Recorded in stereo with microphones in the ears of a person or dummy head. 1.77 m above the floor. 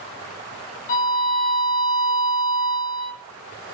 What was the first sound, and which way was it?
A violin, 45° left (ahead or behind).